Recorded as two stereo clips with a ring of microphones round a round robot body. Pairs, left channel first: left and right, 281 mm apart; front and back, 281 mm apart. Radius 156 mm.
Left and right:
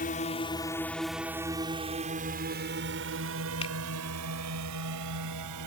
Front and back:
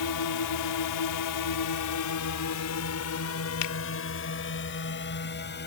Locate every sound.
0.0 s a drone: 25° left; by 5.7 s 55° right
3.6 s a finger snap: 15° left